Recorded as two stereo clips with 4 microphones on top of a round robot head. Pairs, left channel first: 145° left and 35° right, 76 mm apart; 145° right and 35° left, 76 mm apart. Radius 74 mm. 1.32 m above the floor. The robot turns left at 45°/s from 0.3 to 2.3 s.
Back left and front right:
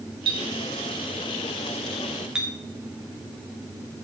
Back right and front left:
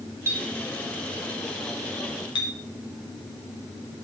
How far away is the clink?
About 2 m.